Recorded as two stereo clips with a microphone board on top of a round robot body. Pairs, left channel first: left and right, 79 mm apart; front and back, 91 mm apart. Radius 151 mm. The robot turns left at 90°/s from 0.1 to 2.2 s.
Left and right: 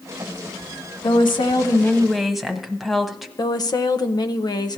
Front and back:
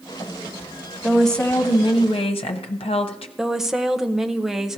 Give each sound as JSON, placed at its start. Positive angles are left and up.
{"t": 1.0, "sound": "a woman speaking", "azimuth_deg": 105, "distance_m": 1.1}
{"t": 3.4, "sound": "a woman speaking", "azimuth_deg": 95, "distance_m": 0.9}